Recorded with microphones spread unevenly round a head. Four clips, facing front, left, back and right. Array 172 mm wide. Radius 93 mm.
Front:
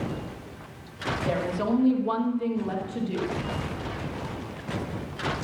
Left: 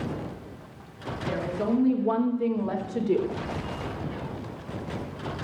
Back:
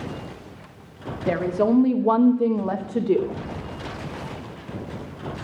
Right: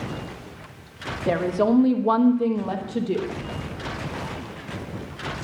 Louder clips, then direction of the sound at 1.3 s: Right 7 dB, back 7 dB; 130° right.